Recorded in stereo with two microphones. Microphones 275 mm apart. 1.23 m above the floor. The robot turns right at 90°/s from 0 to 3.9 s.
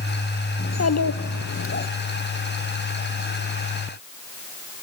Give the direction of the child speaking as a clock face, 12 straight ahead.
11 o'clock.